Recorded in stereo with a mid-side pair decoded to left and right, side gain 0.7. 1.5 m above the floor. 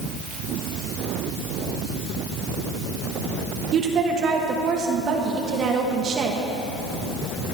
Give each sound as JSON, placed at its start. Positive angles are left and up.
{"t": 3.7, "sound": "a woman speaking", "azimuth_deg": -40, "distance_m": 1.5}